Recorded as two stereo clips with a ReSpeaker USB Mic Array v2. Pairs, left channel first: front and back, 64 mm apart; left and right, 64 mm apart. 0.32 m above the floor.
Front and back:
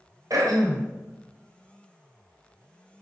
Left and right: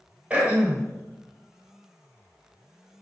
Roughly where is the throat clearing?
Behind.